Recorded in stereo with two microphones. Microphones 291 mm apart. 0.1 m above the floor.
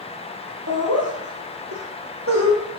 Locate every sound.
0.7 s laughter: 60° right (ahead or behind), 3 m; by 2.6 s 50° right (ahead or behind), 3 m